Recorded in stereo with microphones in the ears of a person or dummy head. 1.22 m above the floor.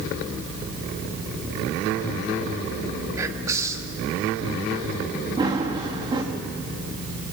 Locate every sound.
3.2 s whispering: 20° right (ahead or behind), 2.5 m
5.4 s running footsteps: 25° right (ahead or behind), 4.5 m